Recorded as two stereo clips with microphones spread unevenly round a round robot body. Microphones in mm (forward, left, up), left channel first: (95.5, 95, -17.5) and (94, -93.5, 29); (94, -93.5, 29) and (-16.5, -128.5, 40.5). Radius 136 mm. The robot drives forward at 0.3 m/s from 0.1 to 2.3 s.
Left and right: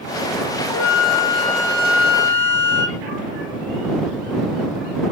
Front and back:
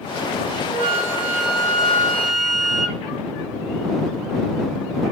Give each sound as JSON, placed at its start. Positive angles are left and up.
{"t": 0.7, "sound": "a flute", "azimuth_deg": -165, "distance_m": 1.8}